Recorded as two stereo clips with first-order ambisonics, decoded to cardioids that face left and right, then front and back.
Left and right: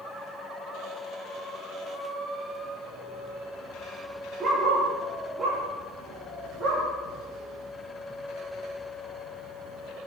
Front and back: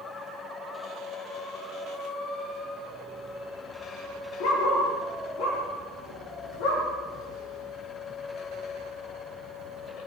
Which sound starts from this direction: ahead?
A dog barking, at 4.4 s.